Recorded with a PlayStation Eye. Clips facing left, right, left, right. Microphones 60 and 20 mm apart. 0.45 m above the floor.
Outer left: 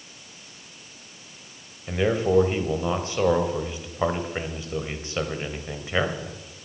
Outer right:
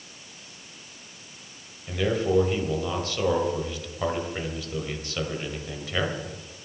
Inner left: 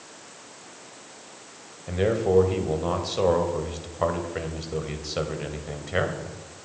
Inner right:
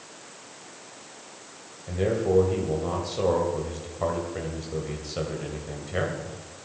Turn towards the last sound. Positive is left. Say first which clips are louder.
# outer left 2 dB, inner left 2 dB
turn(degrees=25)  # may be behind; listen again after turning